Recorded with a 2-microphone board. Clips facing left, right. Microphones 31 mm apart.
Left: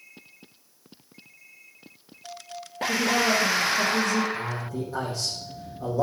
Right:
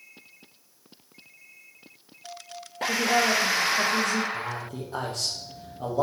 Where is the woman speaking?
55° right (ahead or behind), 4 m.